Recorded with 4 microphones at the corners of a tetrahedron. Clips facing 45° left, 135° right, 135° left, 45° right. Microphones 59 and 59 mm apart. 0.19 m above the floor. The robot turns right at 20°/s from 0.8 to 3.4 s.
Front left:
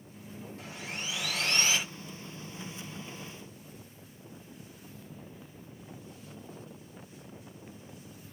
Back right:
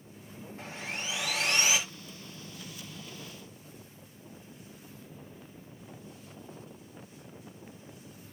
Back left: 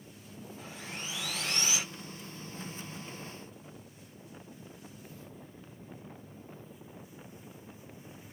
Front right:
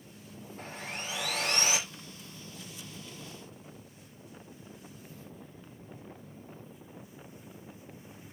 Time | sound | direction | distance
0.6 | sawing | 75° right | 5 m